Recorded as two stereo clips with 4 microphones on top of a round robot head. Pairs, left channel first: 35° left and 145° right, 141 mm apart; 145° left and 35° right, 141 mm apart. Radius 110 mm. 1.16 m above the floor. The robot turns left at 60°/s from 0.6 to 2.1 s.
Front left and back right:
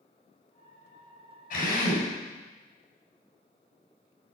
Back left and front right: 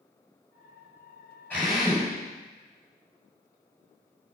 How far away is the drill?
About 7.5 m.